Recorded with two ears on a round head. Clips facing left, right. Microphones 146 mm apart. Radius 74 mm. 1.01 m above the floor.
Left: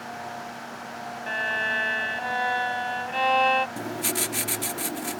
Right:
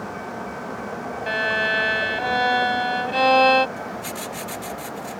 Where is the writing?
65° left (ahead or behind).